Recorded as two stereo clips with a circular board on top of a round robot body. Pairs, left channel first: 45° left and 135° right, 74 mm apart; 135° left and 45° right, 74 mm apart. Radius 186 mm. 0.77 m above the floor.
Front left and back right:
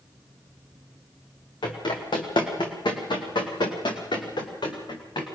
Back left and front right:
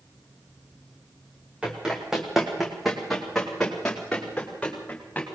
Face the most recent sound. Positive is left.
turn(degrees=60)